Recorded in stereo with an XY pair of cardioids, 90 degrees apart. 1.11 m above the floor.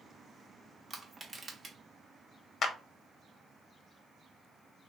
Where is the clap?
60° left, 0.6 m.